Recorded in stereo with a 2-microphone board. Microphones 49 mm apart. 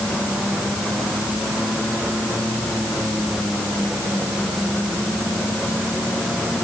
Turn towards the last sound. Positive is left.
No sound to turn to.